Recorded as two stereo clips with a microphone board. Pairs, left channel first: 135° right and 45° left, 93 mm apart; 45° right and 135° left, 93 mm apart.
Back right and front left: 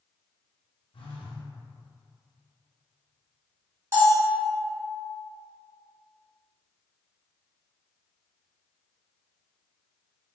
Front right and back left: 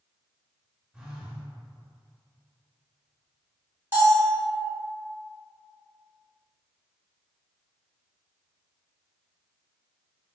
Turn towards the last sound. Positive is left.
turn(degrees=85)